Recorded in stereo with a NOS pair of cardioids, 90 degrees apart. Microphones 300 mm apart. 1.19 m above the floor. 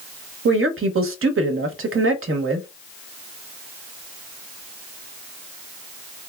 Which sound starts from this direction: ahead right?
A woman speaking, at 0.5 s.